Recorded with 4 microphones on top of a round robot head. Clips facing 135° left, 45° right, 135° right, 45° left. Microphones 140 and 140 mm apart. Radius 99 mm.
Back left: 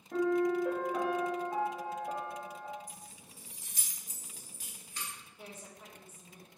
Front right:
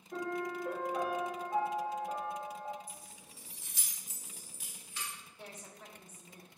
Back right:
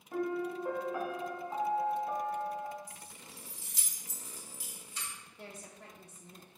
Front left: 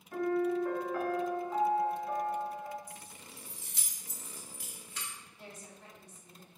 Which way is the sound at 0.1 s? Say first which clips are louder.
Back left 9 dB, front left 4 dB; 150° left.